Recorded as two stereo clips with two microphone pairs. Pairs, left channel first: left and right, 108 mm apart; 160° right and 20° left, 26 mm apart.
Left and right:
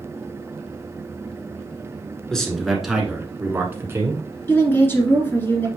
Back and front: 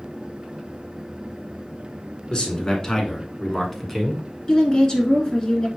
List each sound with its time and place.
2.3 s a man speaking: 170° left, 1.8 m; by 4.2 s 75° right, 1.6 m
4.5 s a woman speaking: 150° left, 2 m